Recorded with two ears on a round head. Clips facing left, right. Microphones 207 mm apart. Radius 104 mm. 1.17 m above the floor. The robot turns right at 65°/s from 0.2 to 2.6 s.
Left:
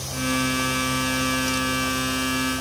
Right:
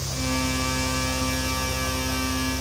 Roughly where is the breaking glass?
No breaking glass in this recording.